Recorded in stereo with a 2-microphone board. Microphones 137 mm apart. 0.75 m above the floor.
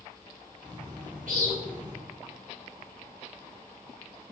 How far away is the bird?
About 1.0 m.